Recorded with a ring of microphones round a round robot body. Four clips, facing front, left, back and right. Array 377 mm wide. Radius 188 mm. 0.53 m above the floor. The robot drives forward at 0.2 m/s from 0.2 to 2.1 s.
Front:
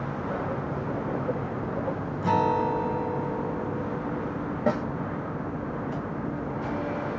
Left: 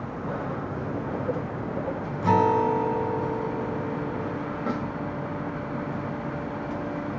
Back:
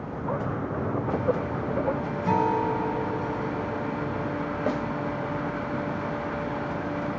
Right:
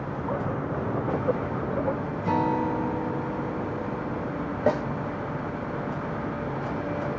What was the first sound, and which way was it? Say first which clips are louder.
A guitar: left 5 dB, front 1 dB; 80° left.